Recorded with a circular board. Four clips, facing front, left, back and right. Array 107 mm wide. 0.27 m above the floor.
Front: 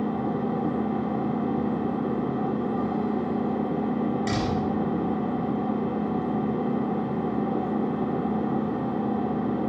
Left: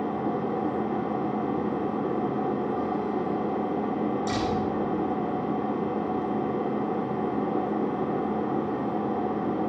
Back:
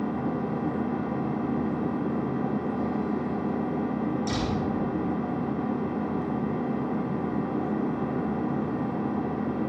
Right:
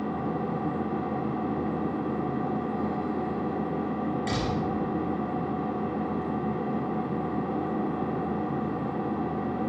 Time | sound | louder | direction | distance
0.0 | an engine running | left 2 dB, front 2 dB | 65° left | 2 m
4.3 | a door slam | left 2 dB, front 2 dB | 30° right | 4 m